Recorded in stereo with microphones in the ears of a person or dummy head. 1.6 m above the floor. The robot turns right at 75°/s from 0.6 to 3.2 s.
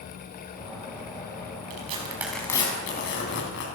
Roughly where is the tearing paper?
Right.